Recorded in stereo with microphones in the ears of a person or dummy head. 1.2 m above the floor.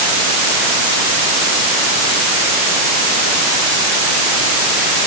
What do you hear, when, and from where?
Only background noise.